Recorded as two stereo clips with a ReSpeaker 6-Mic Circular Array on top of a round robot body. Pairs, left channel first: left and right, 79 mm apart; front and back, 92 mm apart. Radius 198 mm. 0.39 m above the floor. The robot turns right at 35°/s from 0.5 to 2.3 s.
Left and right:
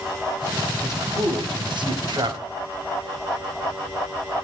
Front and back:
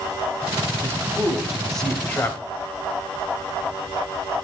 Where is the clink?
I don't hear a clink.